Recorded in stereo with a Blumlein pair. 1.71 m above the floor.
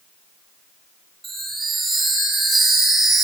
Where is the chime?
15° right, 4 m.